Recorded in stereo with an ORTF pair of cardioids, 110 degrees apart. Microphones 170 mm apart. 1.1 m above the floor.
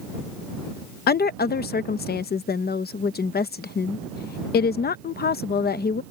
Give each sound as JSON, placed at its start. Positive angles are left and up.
{"t": 1.1, "sound": "a woman speaking", "azimuth_deg": 65}